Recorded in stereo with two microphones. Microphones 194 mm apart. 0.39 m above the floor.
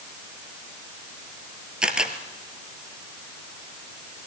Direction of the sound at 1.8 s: 5° right (ahead or behind).